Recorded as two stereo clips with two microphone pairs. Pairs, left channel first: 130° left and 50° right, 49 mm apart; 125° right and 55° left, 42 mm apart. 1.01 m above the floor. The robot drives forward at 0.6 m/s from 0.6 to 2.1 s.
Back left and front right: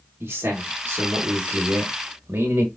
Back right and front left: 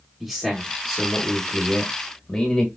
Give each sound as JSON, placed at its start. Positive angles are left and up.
{"t": 0.2, "sound": "a man speaking", "azimuth_deg": -40, "distance_m": 1.6}